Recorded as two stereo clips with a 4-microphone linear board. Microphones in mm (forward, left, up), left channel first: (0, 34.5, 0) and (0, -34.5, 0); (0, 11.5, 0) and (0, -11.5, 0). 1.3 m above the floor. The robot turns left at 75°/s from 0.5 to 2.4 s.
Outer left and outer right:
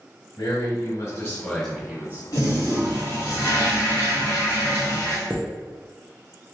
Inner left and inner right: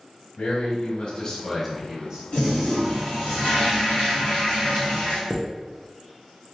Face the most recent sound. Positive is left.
turn(degrees=-25)  # may be behind; listen again after turning